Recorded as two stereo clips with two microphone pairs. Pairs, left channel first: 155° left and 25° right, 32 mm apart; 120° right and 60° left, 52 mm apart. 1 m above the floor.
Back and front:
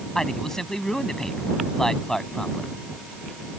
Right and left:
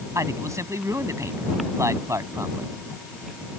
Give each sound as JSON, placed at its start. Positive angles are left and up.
{"t": 0.1, "sound": "a man speaking", "azimuth_deg": 80}